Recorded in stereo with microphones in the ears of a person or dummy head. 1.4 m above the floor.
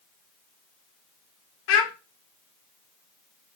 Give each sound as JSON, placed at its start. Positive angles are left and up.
{"t": 1.7, "sound": "a child speaking", "side_deg": 65, "distance_m": 0.7}